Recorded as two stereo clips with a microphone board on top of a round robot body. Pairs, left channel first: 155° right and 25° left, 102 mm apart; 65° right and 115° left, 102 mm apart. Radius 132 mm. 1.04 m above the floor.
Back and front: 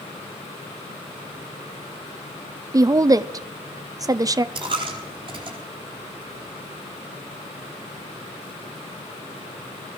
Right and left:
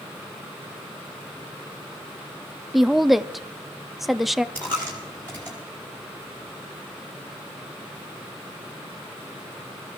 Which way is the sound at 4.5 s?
Straight ahead.